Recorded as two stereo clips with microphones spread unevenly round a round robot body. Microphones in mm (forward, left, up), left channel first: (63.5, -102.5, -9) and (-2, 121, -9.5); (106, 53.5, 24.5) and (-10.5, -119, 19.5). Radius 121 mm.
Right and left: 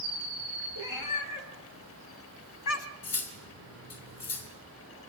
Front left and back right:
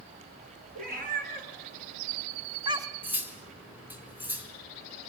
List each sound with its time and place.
0.8 s a cat meowing: 80° right, 4 m; by 2.9 s 50° right, 1.3 m
3.0 s cutlery clinking: 45° right, 3.5 m